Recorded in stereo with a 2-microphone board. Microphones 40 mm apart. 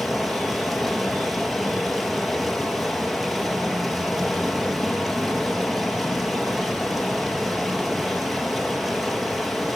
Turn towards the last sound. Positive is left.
turn(degrees=-5)  # may be behind; listen again after turning